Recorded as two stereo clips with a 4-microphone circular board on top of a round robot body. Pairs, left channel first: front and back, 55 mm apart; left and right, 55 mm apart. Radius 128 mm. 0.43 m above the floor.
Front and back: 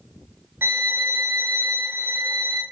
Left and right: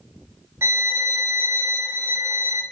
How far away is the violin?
About 0.9 m.